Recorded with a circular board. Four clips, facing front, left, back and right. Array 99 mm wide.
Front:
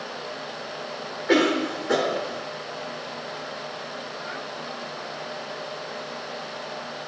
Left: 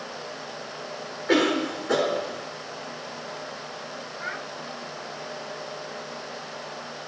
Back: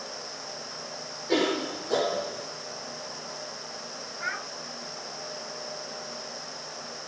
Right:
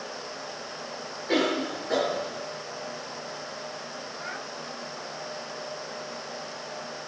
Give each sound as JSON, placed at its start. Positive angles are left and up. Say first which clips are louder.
{"t": 1.3, "sound": "a cough", "louder": "left 4 dB, front 5 dB", "azimuth_deg": 40, "distance_m": 6.0}
{"t": 4.2, "sound": "a child speaking", "louder": "left 4 dB, even", "azimuth_deg": 150, "distance_m": 5.0}